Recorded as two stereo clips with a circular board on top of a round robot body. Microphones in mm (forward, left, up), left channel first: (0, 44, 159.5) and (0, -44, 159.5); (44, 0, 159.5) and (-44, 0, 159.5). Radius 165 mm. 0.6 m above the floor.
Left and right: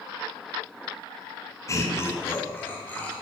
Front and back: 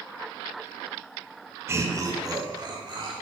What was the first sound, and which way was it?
Laughter, 130° left.